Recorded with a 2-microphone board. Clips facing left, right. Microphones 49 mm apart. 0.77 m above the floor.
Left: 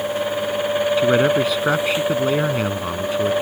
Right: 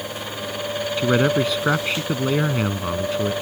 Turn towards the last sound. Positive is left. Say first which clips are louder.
# left 1 dB
turn(degrees=0)  # may be behind; listen again after turning